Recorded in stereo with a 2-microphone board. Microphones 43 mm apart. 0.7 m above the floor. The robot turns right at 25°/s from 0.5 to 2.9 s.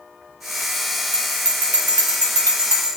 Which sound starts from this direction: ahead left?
A bell, at 1.1 s.